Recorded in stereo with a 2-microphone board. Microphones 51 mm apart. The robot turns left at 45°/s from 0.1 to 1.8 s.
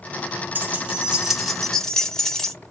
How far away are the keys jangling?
About 1.0 m.